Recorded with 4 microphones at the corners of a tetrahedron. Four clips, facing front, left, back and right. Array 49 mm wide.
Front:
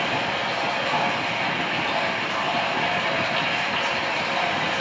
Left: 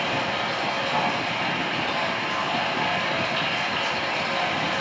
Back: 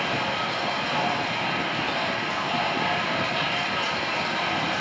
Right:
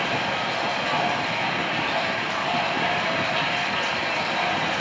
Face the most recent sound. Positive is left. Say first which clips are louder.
# right 1 dB, front 2 dB
turn(degrees=-35)